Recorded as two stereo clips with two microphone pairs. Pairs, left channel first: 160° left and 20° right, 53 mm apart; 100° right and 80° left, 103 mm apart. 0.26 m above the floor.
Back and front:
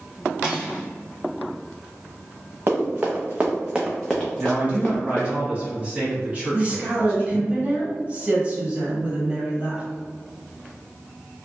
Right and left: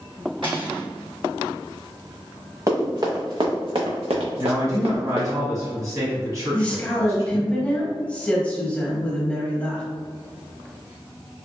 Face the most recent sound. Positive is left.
turn(degrees=-40)